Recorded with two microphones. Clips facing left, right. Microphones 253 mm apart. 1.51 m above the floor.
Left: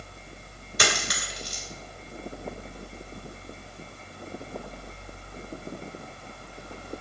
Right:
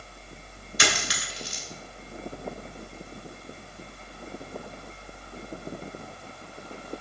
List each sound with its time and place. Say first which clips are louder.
0.8 s a dropped coin: left 1 dB; 55° left (ahead or behind), 2.5 m